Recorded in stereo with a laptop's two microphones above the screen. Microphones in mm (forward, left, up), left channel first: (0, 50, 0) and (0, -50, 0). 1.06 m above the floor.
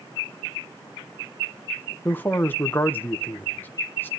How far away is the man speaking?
About 1.1 m.